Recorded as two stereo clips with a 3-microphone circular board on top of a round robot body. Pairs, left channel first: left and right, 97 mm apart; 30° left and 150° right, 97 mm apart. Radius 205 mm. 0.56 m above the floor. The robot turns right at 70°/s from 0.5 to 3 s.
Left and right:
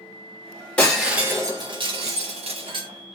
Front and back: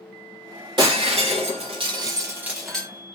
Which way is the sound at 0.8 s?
165° left.